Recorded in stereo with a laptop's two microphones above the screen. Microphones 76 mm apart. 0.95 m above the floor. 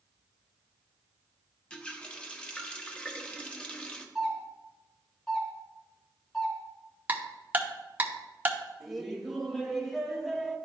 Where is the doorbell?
10° left (ahead or behind), 2.5 m.